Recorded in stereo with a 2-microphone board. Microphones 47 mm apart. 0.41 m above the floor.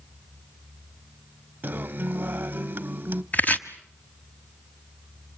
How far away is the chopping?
About 1.1 m.